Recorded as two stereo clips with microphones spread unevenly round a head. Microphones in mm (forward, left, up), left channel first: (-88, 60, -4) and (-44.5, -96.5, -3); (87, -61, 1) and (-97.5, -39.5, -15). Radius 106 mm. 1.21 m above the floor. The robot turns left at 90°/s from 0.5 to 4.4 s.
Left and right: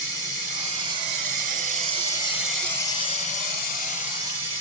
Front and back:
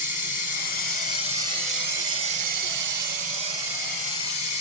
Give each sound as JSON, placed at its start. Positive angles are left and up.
{"t": 0.0, "sound": "running water", "azimuth_deg": 15, "distance_m": 1.7}